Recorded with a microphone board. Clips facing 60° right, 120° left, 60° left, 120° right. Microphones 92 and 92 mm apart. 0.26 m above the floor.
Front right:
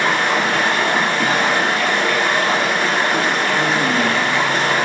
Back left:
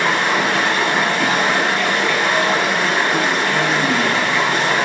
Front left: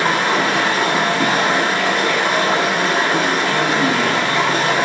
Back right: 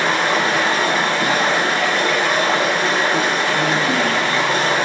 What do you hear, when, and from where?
0.0 s running water: 25° left, 1.5 m